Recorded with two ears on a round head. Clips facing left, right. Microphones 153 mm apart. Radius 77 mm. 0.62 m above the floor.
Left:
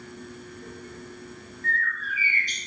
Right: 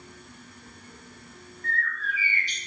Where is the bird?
40° left (ahead or behind), 0.6 m.